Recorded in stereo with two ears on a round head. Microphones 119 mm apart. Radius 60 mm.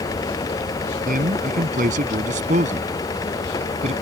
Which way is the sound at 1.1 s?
65° right (ahead or behind).